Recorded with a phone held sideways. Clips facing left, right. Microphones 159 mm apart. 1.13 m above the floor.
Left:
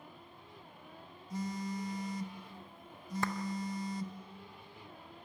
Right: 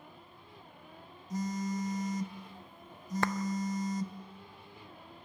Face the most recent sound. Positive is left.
turn(degrees=-65)  # may be behind; listen again after turning